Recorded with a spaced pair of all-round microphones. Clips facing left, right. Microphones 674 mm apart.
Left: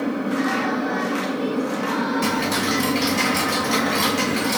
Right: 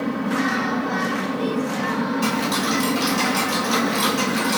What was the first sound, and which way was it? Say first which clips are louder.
A fan: left 1 dB; 30° right (ahead or behind).